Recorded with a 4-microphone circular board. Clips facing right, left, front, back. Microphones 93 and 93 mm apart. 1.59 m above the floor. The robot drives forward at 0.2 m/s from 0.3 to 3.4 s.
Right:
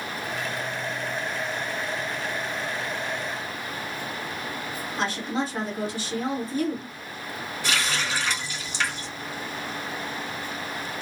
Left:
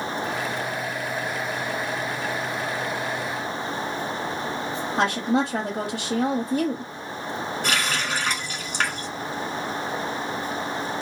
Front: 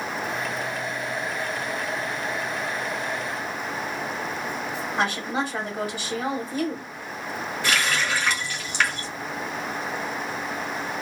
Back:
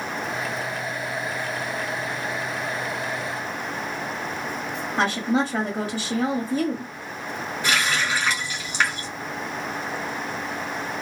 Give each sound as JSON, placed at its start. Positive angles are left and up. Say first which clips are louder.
{"t": 5.0, "sound": "a woman speaking", "louder": "left 6 dB, back 4 dB", "azimuth_deg": 115, "distance_m": 0.7}
{"t": 7.6, "sound": "a running tap", "louder": "even, back 1 dB", "azimuth_deg": 110, "distance_m": 1.1}